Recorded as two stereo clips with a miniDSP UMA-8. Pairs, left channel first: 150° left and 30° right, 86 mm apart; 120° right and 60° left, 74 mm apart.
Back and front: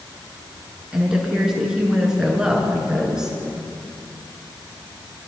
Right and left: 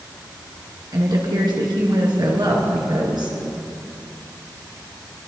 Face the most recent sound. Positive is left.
turn(degrees=50)